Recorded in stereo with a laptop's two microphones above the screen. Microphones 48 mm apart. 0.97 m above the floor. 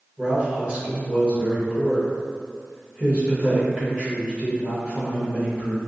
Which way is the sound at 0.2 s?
20° right (ahead or behind).